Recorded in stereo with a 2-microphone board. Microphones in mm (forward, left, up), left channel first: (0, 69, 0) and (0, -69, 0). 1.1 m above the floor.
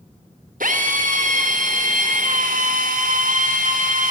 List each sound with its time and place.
0.6 s a drill: 80° right, 4.5 m